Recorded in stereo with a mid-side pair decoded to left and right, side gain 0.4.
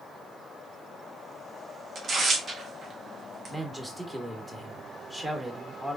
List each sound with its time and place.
1.9 s tearing paper: 55° right, 1.1 m
3.5 s a man speaking: 20° right, 1.7 m